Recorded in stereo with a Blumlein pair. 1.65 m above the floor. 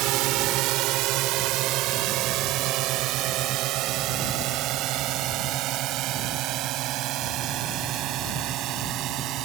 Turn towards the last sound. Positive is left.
turn(degrees=-35)